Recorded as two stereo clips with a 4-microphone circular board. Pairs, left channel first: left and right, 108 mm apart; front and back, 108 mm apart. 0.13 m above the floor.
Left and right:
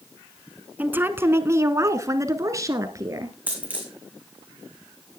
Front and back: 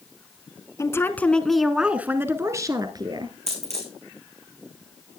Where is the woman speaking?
30° right, 1.2 m; by 3.4 s 145° right, 1.8 m.